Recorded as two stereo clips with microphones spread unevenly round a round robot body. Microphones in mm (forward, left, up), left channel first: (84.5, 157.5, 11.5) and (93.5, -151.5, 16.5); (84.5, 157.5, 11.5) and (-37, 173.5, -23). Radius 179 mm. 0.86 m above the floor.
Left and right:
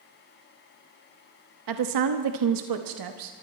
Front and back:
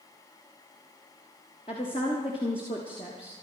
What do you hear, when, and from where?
1.7 s a woman speaking: 85° right, 1.0 m